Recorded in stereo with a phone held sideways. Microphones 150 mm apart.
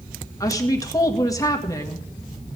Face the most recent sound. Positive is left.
turn(degrees=25)  # may be behind; listen again after turning